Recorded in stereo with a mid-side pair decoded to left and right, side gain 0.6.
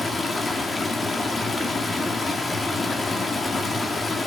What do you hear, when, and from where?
0.0 s running water: 20° left, 1.7 m